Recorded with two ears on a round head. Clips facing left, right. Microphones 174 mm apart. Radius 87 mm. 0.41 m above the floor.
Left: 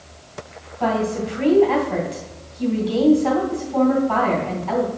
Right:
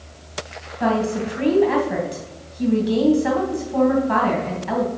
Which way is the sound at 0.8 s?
20° right (ahead or behind).